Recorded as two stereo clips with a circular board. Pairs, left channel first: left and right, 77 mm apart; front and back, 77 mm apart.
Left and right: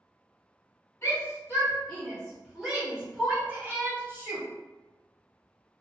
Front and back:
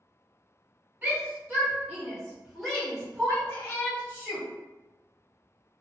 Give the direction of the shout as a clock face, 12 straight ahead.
8 o'clock.